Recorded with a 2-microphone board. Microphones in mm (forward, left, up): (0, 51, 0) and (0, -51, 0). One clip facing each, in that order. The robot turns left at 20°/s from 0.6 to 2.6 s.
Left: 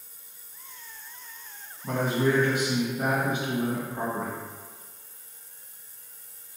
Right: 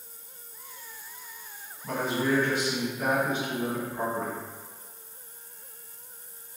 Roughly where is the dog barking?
I don't hear a dog barking.